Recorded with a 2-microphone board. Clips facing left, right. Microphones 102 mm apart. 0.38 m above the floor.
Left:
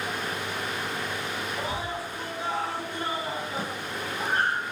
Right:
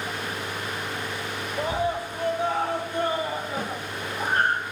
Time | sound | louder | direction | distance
1.6 | a scream | right 10 dB | 55° right (ahead or behind) | 2.5 m
3.6 | a snare drum | right 2 dB | 50° right (ahead or behind) | 5 m